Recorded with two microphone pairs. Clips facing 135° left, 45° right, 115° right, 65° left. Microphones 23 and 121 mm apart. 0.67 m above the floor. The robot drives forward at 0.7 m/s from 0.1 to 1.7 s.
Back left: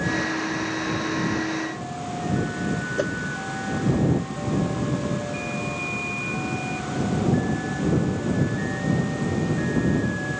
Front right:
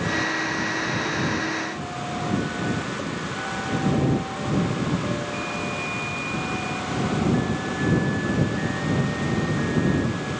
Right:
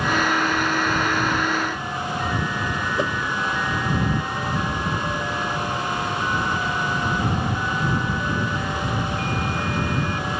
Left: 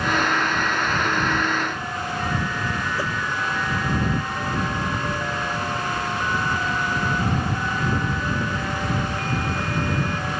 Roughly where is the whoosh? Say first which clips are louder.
Back left 4 dB, right 3 dB; behind.